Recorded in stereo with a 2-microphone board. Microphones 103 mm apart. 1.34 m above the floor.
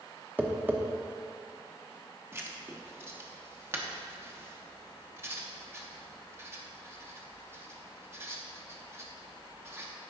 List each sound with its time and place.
0.4 s tapping: 20° right (ahead or behind), 0.8 m
2.3 s writing: 25° right (ahead or behind), 0.9 m